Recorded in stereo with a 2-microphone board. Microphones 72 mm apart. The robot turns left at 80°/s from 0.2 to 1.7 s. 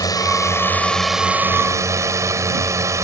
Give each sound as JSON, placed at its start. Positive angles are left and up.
{"t": 0.0, "sound": "a drone", "azimuth_deg": 70}